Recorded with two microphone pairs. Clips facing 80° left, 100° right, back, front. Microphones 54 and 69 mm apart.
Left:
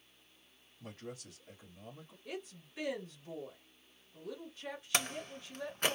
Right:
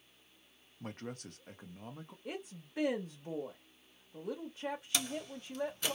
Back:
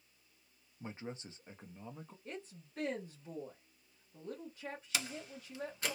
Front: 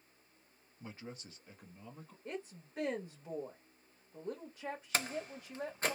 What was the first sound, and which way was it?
A man speaking, 125° right.